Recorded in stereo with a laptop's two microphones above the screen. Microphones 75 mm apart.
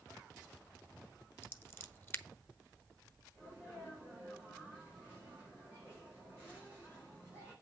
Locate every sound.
1.4 s scissors: 30° left (ahead or behind), 1.0 m
3.4 s a sneeze: 30° left (ahead or behind), 4.5 m